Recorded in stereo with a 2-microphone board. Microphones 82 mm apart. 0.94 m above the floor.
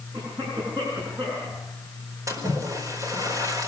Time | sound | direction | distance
0.1 | a cough | 65° right (ahead or behind) | 9.5 m
2.3 | a splash | 40° right (ahead or behind) | 4.5 m